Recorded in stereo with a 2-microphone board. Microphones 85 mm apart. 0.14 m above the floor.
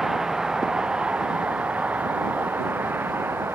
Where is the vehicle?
5° right (ahead or behind); by 3.6 s 25° right (ahead or behind).